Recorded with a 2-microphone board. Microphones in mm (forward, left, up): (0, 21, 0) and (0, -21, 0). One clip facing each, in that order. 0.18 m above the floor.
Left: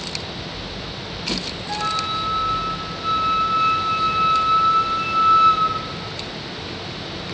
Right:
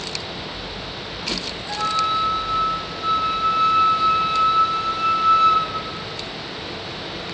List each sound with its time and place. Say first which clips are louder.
1.7 s a flute: right 3 dB; 5° right (ahead or behind), 3 m